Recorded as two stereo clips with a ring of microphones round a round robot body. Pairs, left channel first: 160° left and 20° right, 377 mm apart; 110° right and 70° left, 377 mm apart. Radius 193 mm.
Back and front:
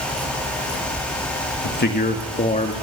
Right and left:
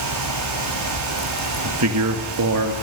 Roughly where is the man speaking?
Left.